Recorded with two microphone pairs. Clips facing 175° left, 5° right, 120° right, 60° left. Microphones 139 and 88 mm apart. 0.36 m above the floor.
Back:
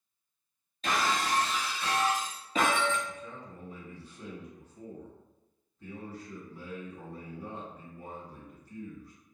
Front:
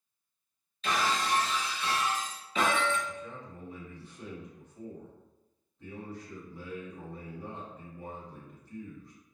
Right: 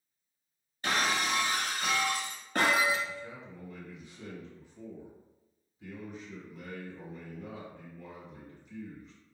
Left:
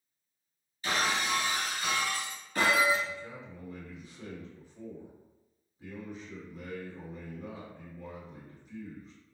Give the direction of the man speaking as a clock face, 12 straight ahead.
11 o'clock.